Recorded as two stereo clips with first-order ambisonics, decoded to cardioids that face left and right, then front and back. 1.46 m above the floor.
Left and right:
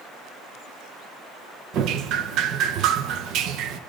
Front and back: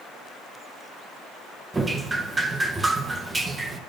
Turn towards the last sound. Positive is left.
turn(degrees=-105)